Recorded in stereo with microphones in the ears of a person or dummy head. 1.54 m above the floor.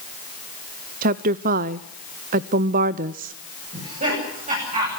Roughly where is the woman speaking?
Right.